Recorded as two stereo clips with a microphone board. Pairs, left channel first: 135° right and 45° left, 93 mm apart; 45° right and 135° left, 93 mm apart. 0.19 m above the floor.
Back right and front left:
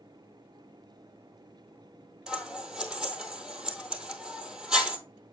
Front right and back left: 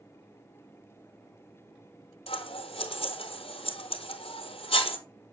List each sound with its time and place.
2.3 s scissors: 35° right, 0.8 m